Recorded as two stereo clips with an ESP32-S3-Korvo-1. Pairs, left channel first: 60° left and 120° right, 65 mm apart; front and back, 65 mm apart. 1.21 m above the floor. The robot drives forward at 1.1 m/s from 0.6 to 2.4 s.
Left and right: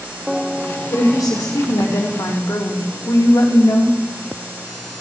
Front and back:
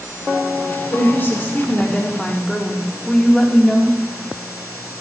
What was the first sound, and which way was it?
A woman speaking, 50° left.